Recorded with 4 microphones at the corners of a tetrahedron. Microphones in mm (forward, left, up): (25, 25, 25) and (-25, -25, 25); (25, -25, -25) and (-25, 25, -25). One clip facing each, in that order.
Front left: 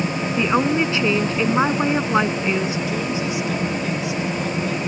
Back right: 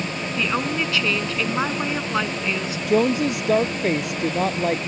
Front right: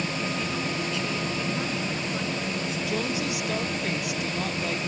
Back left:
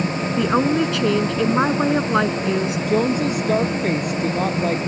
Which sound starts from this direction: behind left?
A woman speaking, at 0.4 s.